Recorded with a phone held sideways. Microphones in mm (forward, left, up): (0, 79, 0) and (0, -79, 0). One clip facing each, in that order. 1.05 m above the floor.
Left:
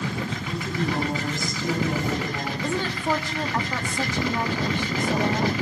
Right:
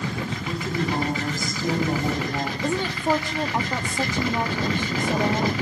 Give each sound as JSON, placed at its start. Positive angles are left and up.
{"t": 0.4, "sound": "a woman speaking", "side_deg": -40, "distance_m": 8.5}
{"t": 2.6, "sound": "a woman speaking", "side_deg": -20, "distance_m": 1.7}